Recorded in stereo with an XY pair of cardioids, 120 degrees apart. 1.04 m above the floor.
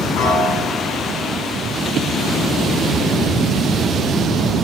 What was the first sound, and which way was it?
A piano, 65° left.